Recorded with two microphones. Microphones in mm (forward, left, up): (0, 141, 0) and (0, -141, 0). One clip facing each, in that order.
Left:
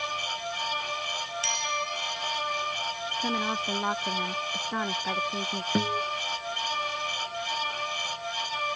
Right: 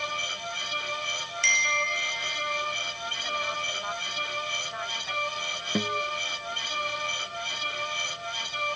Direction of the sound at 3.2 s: 70° left (ahead or behind).